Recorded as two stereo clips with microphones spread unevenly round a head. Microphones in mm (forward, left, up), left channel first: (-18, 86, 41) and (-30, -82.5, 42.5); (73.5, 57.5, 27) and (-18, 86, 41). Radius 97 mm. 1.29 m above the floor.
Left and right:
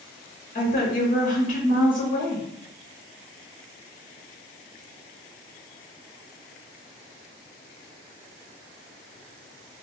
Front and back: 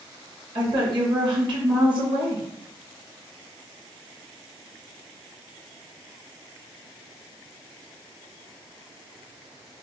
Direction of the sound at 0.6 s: 125° left.